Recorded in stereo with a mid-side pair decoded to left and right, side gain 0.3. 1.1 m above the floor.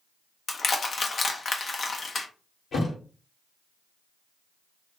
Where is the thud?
70° left, 1.2 m.